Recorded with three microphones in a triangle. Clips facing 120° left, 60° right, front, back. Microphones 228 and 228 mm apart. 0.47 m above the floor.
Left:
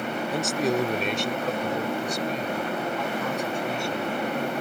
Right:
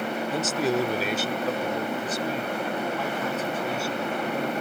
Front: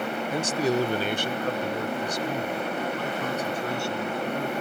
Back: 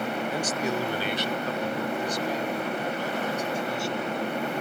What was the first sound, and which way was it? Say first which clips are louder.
A man speaking: left 1 dB, front 8 dB; 25° left.